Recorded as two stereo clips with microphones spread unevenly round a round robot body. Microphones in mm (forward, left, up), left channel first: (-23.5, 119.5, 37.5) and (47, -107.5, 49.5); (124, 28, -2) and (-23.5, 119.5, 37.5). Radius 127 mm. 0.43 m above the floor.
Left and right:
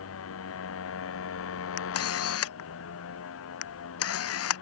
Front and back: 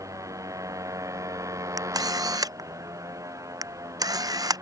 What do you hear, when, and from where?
0.0 s a motorcycle: 75° left
1.8 s a camera shutter: 80° left